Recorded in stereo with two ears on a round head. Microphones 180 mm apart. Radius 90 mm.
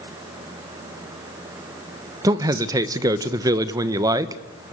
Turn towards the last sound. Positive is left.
turn(degrees=-20)  # may be behind; listen again after turning